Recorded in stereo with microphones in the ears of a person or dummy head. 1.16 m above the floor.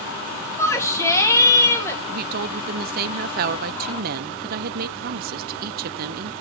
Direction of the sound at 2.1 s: 55° right (ahead or behind).